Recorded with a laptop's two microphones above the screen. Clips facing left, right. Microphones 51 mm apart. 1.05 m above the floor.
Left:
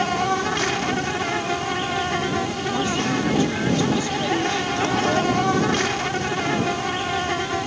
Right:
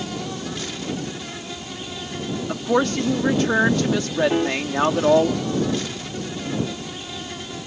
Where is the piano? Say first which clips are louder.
Right 1 dB; 35° right (ahead or behind).